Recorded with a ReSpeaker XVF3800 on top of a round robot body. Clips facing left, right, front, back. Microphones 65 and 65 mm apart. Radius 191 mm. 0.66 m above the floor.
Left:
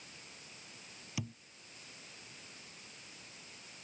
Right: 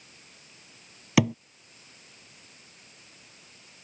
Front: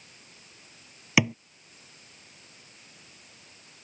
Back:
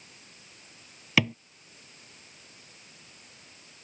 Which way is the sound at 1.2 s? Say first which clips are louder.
Right 21 dB, front 1 dB; 80° right.